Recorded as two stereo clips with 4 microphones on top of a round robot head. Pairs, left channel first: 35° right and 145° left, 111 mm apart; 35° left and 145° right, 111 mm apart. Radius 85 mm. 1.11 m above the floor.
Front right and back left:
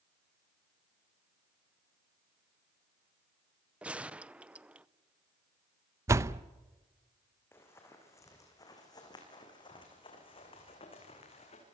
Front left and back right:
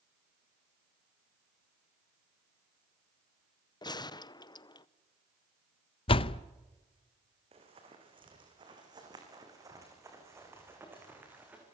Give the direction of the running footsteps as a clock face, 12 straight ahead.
4 o'clock.